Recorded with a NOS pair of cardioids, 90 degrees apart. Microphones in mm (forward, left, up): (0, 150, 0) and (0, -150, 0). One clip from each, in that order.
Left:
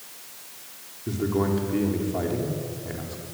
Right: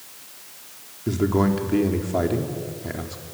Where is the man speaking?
40° right, 4 m.